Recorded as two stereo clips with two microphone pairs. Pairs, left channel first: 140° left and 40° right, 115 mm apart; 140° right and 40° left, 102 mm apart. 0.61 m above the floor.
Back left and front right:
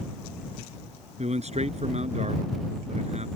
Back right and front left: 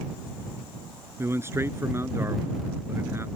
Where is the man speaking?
25° right.